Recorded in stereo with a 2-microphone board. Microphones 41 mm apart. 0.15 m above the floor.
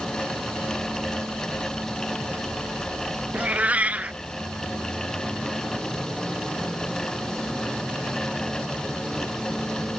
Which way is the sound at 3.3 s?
40° right (ahead or behind).